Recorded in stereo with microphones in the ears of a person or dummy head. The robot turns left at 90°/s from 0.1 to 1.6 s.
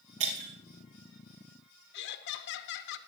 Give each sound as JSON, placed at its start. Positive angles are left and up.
{"t": 0.2, "sound": "breaking glass", "side_deg": -65, "distance_m": 3.0}
{"t": 1.9, "sound": "laughter", "side_deg": 70, "distance_m": 1.1}